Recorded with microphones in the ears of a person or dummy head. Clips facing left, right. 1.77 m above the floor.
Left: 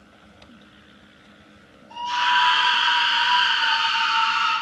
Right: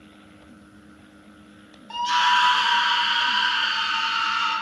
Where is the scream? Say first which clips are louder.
Right 2 dB; 75° right (ahead or behind), 0.6 m; by 4.5 s 25° right (ahead or behind), 1.7 m.